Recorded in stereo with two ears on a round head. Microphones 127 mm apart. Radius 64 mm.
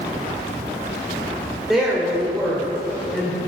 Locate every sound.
1.7 s a woman speaking: centre (ahead or behind), 2.0 m